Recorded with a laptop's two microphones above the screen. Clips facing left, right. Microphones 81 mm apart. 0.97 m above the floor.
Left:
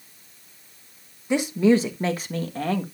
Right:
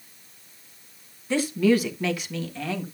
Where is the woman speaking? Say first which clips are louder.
Left 2 dB; 15° left (ahead or behind), 1.3 m; by 2.8 s 45° left (ahead or behind), 1.7 m.